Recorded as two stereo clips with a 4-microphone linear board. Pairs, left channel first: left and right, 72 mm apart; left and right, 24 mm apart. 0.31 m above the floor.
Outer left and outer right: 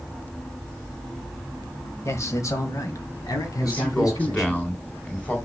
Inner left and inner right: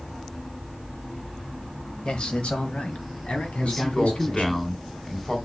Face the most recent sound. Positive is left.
turn(degrees=20)  # may be behind; listen again after turning